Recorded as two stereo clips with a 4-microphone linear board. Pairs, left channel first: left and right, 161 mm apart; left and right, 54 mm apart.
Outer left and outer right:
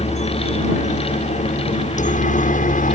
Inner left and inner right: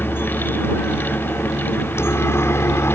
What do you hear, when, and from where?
0.0 s a helicopter: 50° left (ahead or behind); by 3.0 s 60° left (ahead or behind)